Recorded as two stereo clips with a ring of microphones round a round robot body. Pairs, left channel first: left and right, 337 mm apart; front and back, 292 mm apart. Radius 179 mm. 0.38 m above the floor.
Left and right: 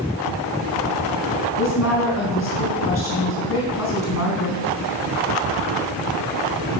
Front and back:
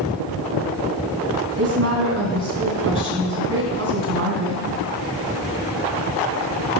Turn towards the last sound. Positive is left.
turn(degrees=140)